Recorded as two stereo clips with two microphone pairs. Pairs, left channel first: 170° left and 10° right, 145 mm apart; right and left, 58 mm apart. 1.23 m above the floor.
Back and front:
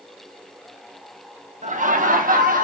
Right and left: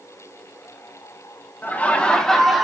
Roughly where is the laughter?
Ahead right.